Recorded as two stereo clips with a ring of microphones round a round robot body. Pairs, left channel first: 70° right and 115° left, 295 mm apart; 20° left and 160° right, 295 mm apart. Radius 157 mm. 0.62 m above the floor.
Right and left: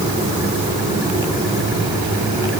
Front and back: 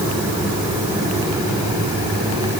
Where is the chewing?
I don't hear chewing.